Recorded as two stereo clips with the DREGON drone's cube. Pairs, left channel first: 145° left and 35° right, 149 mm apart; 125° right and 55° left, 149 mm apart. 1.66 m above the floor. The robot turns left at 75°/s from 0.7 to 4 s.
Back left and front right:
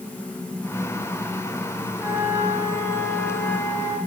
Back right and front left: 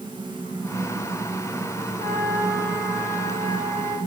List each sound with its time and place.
2.0 s a flute: 55° left, 5.5 m; by 4.0 s 95° right, 5.5 m